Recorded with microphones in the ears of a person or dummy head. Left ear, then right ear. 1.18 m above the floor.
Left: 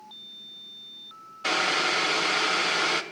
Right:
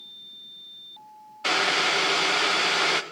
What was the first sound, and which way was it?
Boiling, 15° right (ahead or behind).